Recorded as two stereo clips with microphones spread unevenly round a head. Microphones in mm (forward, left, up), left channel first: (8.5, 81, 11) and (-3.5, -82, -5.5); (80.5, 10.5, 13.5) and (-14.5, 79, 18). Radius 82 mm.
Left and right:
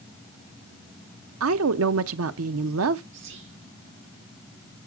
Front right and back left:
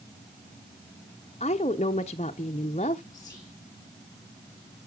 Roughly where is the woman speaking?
Right.